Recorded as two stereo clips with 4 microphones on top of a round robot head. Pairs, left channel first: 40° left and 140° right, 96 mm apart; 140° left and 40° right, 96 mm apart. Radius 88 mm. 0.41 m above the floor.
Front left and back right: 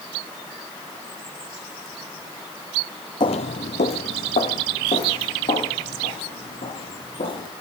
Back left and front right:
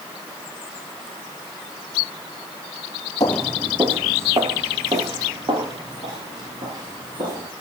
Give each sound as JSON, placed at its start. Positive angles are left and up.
{"t": 3.2, "sound": "footsteps", "azimuth_deg": 85, "distance_m": 0.6}